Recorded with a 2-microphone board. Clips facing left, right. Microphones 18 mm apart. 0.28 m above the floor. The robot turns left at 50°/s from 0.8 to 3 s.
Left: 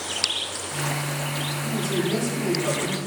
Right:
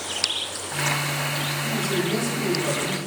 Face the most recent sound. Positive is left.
turn(degrees=170)